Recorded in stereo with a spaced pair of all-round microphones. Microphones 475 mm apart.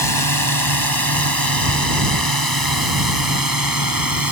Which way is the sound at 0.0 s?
50° right (ahead or behind).